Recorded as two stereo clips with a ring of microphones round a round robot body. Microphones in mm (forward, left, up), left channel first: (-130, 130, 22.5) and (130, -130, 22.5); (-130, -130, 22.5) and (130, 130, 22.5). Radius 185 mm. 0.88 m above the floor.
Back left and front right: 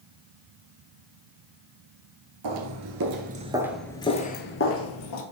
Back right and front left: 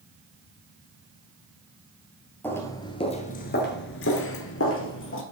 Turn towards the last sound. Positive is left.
turn(degrees=170)